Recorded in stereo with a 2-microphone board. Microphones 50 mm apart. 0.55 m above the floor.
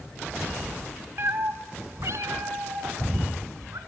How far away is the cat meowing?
About 1.3 m.